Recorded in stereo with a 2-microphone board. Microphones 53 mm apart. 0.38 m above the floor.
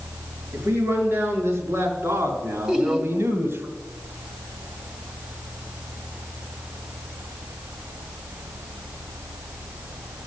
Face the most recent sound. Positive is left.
turn(degrees=-15)  # may be behind; listen again after turning